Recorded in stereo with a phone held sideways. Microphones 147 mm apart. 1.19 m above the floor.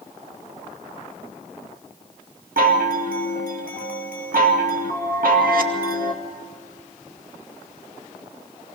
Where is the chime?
75° right (ahead or behind), 2 m.